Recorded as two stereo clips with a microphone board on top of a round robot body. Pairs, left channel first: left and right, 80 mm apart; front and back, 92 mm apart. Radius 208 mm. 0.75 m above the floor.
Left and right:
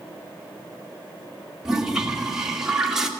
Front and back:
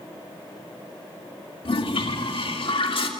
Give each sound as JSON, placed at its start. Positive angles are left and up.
{"t": 1.6, "sound": "a toilet flushing", "azimuth_deg": -5, "distance_m": 1.8}